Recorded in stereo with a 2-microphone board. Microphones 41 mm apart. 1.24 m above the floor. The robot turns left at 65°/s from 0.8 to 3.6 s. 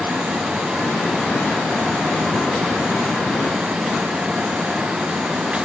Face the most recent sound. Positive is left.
No sound to turn to.